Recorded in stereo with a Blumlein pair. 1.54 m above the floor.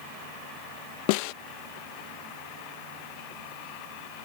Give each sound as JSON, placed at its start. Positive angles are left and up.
{"t": 1.1, "sound": "a snare drum", "azimuth_deg": 45}